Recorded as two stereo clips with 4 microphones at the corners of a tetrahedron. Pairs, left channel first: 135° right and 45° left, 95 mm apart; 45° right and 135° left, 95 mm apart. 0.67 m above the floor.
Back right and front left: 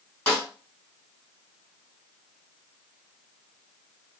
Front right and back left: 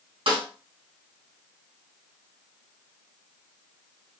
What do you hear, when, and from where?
0.3 s a snare drum: 155° left, 2.5 m